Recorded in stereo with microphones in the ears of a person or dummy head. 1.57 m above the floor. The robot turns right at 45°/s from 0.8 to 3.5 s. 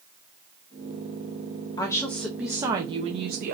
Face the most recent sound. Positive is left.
turn(degrees=-125)